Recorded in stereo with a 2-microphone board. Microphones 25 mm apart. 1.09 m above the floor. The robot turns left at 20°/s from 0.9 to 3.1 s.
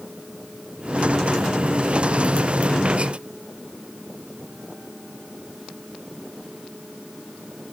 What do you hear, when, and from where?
Only background noise.